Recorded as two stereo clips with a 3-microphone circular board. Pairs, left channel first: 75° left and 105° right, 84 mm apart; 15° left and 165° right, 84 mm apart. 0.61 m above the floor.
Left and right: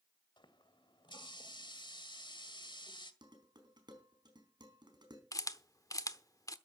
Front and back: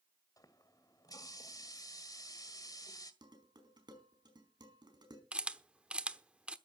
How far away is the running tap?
About 1.7 m.